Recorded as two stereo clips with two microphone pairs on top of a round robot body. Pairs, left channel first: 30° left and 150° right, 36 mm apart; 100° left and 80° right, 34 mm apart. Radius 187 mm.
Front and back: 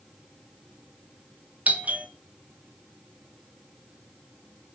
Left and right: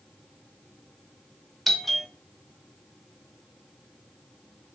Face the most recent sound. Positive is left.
turn(degrees=-175)